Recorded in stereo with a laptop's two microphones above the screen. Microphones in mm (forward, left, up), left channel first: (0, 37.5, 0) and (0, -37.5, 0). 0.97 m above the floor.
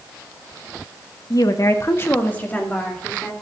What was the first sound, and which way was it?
A woman speaking, 55° left (ahead or behind).